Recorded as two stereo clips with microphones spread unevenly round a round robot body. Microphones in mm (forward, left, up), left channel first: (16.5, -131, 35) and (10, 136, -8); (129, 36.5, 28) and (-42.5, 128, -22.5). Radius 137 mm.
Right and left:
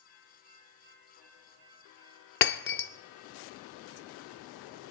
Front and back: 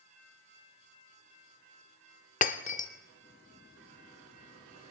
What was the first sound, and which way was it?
Breaking glass, 55° right.